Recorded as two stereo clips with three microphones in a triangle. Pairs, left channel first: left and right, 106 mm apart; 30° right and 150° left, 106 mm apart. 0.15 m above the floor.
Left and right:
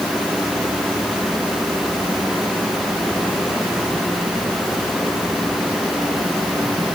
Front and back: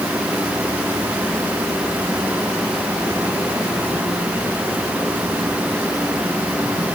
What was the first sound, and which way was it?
Only background noise.